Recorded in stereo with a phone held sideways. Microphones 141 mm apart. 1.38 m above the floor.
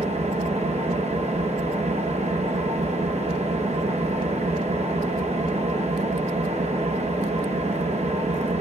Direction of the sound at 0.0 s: 55° right (ahead or behind).